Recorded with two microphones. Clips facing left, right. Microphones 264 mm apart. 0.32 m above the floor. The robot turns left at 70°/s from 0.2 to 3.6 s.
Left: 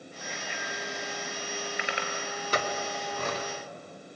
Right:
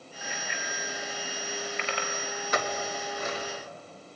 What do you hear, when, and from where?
0.2 s a bicycle bell: 75° right (ahead or behind), 4 m; by 2.1 s 30° left (ahead or behind), 4 m
2.5 s a clink: 40° left (ahead or behind), 2.5 m; by 3.5 s 65° left (ahead or behind), 2.5 m